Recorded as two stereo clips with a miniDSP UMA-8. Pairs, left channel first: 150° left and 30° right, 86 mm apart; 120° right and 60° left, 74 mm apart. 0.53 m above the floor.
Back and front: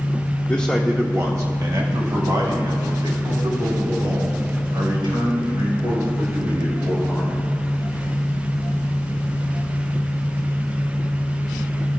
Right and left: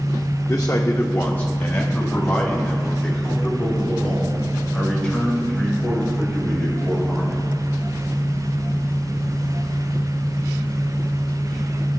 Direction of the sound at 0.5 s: 155° right.